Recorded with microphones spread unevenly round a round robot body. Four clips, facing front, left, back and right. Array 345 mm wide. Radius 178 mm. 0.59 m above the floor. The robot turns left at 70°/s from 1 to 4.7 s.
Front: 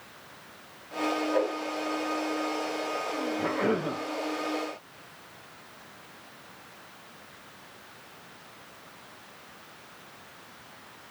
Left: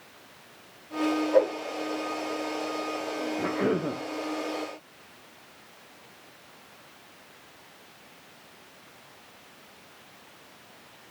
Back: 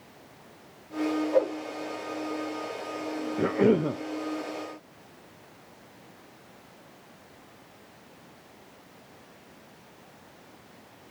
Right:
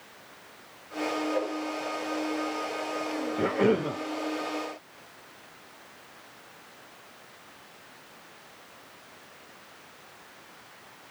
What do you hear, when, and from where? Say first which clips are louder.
1.3 s a whoosh: left 8 dB, back 4 dB; 140° left, 2.5 m; by 1.6 s 125° left, 2.5 m
3.4 s a cough: right 3 dB, back 7 dB; 155° right, 1.7 m; by 4.0 s 160° left, 1.7 m